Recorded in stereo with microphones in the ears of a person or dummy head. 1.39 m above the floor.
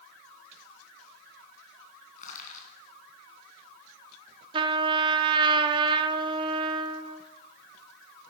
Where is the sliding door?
I don't hear a sliding door.